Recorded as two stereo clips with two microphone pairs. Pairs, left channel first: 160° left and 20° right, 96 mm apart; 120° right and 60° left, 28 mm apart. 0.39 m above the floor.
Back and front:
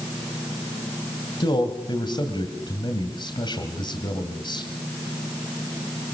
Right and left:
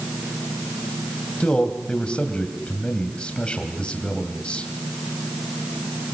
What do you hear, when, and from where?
1.4 s a man speaking: 170° right, 2.5 m